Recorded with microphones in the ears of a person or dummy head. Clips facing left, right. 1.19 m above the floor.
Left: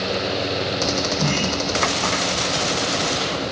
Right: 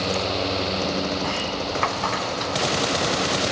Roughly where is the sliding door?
Left.